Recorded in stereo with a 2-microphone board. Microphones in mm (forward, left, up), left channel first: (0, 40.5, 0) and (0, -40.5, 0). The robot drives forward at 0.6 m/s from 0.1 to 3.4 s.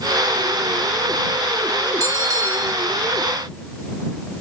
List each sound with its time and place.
2.0 s a bell: 35° right (ahead or behind), 6.5 m